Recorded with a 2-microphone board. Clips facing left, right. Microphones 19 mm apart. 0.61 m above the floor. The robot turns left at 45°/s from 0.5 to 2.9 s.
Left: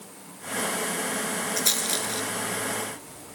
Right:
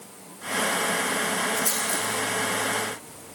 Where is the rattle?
60° left (ahead or behind), 2 m; by 3.4 s 55° left (ahead or behind), 2 m.